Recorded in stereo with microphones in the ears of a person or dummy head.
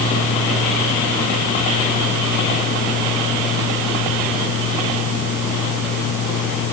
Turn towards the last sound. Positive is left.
No sound to turn to.